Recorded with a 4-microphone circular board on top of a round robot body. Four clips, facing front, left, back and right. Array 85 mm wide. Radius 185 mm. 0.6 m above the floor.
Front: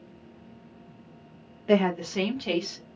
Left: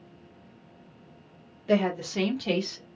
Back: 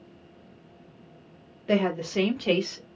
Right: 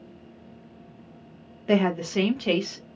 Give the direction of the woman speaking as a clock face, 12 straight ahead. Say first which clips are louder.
Right 2 dB, front 2 dB; 2 o'clock.